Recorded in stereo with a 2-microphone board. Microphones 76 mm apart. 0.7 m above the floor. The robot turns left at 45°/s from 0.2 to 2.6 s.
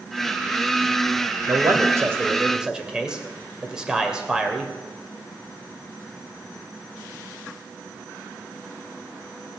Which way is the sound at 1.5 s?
120° right.